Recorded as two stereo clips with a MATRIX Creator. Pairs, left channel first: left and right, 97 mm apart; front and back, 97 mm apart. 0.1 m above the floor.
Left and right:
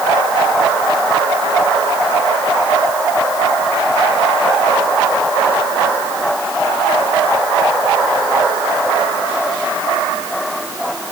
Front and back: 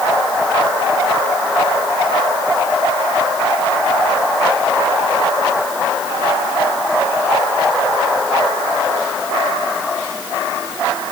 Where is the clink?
No clink in this recording.